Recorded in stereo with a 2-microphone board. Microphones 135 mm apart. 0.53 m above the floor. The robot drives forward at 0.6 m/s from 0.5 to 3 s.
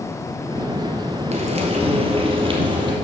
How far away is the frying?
About 1.5 m.